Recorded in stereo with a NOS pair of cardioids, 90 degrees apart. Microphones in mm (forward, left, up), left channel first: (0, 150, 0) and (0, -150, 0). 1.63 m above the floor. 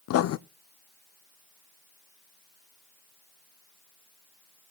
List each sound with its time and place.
0.1 s writing: 55° left, 0.6 m